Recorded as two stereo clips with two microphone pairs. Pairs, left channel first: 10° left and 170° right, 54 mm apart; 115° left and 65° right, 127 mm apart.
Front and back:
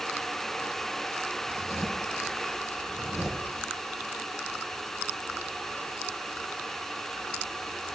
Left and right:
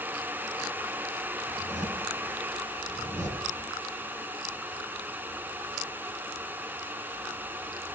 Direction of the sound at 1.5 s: 75° right.